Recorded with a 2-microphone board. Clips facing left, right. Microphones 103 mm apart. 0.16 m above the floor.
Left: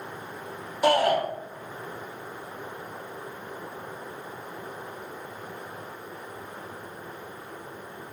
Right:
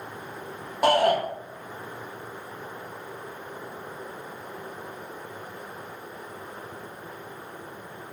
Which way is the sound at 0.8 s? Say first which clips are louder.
Right 1 dB; 55° right (ahead or behind).